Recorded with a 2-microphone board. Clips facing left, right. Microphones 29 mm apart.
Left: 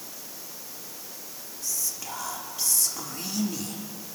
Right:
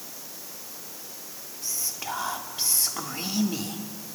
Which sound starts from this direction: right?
Whispering, at 1.6 s.